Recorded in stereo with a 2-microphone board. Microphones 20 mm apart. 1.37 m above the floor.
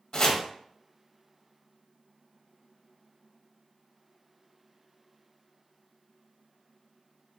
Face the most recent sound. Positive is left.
turn(degrees=40)  # may be behind; listen again after turning